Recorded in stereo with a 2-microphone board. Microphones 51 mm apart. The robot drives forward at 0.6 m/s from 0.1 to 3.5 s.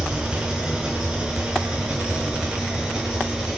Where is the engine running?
20° right (ahead or behind), 6.5 m; by 3.6 s 15° right (ahead or behind), 8.5 m.